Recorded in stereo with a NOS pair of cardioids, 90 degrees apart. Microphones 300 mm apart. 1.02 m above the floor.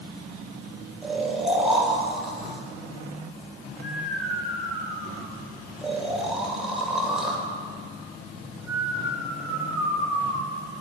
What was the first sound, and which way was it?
Snoring, straight ahead.